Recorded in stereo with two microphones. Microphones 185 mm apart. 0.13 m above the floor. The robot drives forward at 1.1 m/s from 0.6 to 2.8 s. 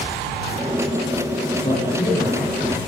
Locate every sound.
1.6 s a man speaking: 30° left (ahead or behind), 8 m; by 2.8 s 25° left (ahead or behind), 9.5 m